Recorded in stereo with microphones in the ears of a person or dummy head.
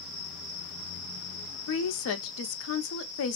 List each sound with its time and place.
1.7 s a woman speaking: 80° left, 0.7 m